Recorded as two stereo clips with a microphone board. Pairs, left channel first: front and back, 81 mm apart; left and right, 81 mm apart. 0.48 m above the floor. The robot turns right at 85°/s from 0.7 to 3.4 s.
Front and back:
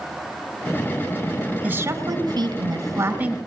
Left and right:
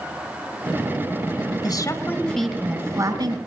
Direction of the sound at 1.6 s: 115° left.